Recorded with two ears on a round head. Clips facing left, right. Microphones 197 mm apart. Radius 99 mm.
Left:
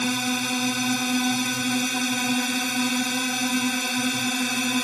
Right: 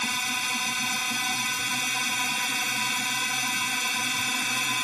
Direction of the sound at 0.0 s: 35° left (ahead or behind).